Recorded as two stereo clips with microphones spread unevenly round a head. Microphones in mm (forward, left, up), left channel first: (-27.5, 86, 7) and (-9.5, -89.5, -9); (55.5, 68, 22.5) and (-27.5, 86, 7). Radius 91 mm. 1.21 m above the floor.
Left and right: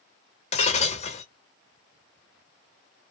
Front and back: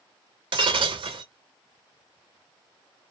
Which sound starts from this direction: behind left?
Breaking glass, at 0.5 s.